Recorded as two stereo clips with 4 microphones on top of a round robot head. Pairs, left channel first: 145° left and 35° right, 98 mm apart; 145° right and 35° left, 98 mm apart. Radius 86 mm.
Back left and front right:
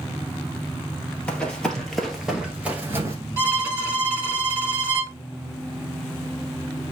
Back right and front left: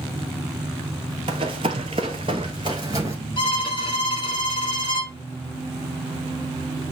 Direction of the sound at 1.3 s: 70° left.